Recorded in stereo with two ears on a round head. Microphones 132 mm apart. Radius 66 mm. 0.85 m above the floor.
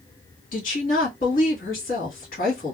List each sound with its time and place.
0.5 s a woman speaking: 60° left (ahead or behind), 1.3 m